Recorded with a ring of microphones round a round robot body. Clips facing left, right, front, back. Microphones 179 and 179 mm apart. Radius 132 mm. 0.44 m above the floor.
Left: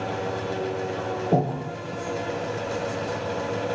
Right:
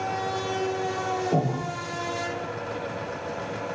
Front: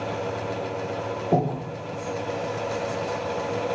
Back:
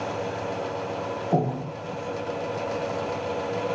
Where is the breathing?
50° left, 0.8 m.